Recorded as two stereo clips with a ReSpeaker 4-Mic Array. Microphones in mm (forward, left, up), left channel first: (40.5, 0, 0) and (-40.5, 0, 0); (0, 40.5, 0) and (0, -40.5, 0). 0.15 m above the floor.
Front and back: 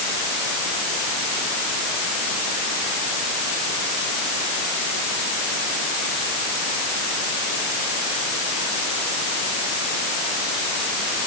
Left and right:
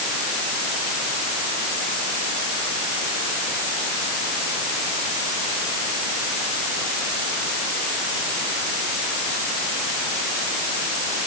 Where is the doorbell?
No doorbell in this recording.